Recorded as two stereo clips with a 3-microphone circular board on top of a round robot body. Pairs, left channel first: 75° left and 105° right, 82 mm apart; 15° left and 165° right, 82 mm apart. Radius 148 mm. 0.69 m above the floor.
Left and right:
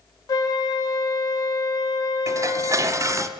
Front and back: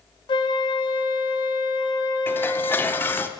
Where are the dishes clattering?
55° right, 0.8 m.